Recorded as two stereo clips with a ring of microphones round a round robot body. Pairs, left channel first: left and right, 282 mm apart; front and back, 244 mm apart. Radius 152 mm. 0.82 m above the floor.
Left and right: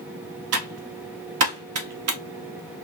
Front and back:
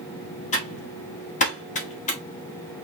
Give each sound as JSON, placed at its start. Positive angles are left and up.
{"t": 0.5, "sound": "typing on a keyboard", "azimuth_deg": -60, "distance_m": 1.1}